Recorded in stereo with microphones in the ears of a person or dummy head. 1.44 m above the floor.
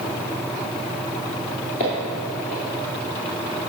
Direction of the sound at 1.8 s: 25° left (ahead or behind).